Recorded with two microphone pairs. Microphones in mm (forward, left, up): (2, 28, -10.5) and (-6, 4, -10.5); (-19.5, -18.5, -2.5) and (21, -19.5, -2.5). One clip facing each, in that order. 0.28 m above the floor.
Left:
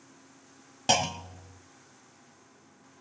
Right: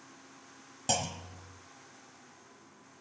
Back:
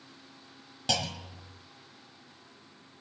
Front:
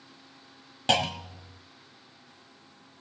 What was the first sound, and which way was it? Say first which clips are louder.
A clunk: left 7 dB, front 6 dB; 40° left.